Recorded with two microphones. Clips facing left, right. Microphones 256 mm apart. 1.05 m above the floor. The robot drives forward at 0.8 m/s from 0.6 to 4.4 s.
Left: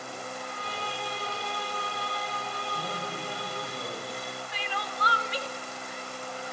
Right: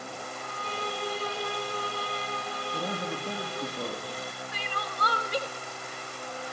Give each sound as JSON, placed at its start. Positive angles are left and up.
{"t": 0.4, "sound": "a violin", "side_deg": -50, "distance_m": 2.5}
{"t": 2.7, "sound": "a man speaking", "side_deg": -70, "distance_m": 2.0}
{"t": 4.5, "sound": "crying", "side_deg": -50, "distance_m": 0.7}